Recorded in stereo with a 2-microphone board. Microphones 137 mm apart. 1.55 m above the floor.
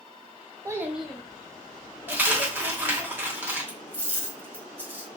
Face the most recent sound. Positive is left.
turn(degrees=-15)  # may be behind; listen again after turning